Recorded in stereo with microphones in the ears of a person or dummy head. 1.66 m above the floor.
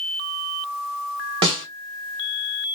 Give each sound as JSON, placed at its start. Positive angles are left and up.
{"t": 1.4, "sound": "a snare drum", "side_deg": -25, "distance_m": 1.3}